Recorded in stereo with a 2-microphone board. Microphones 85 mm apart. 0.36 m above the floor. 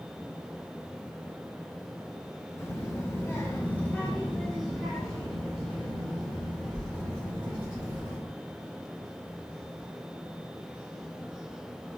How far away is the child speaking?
About 0.8 m.